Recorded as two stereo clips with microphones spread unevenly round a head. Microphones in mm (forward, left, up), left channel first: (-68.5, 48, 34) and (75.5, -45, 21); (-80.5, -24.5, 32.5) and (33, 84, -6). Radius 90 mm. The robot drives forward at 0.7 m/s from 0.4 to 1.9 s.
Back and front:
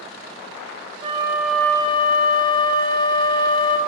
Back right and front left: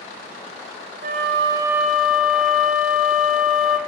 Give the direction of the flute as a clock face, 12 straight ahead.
11 o'clock.